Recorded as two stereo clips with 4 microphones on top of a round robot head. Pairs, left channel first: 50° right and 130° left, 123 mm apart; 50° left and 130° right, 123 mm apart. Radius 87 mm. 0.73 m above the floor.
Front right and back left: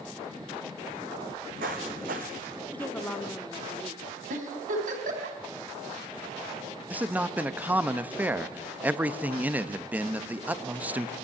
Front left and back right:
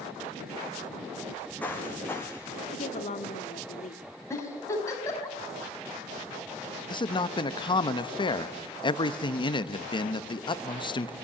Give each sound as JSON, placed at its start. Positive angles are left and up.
{"t": 1.2, "sound": "footsteps", "azimuth_deg": 130, "distance_m": 3.5}
{"t": 2.7, "sound": "a woman speaking", "azimuth_deg": 25, "distance_m": 1.6}
{"t": 4.3, "sound": "a giggle", "azimuth_deg": 115, "distance_m": 5.0}
{"t": 6.9, "sound": "a man speaking", "azimuth_deg": 60, "distance_m": 1.1}